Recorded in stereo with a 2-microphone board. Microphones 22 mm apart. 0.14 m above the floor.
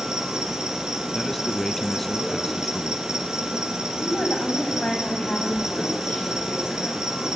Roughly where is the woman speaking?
Left.